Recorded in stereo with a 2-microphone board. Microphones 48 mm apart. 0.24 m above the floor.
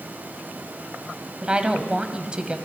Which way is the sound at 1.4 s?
20° right (ahead or behind).